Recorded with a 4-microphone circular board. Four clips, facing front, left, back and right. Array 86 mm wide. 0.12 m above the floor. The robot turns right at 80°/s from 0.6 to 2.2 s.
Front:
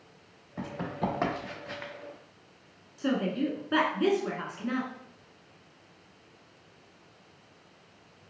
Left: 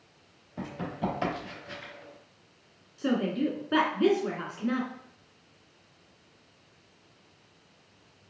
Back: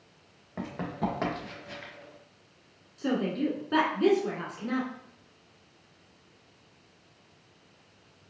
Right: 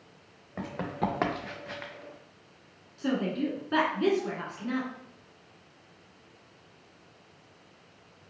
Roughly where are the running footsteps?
Behind right.